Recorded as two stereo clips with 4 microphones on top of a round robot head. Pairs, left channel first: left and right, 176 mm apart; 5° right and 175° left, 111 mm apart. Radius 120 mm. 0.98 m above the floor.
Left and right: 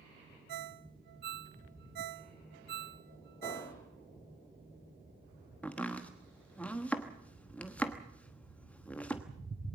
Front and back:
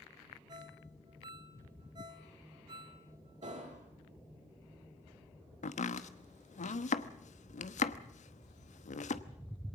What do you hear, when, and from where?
0.5 s a ringtone: 115° right, 0.7 m
3.4 s an explosion: 165° left, 5 m
5.6 s chopping: 5° left, 1.1 m